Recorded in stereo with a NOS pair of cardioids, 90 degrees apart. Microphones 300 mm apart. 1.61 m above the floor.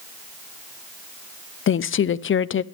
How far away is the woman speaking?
About 0.7 m.